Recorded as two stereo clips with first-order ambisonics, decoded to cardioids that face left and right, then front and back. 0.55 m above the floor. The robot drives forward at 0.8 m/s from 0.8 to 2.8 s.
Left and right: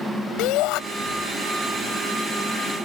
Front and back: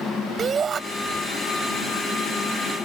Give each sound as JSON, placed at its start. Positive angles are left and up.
{"t": 0.4, "sound": "a shout", "azimuth_deg": 115}